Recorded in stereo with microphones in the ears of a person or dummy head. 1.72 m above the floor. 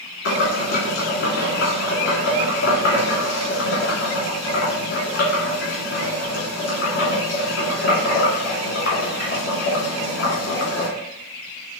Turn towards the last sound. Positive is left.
turn(degrees=70)  # may be behind; listen again after turning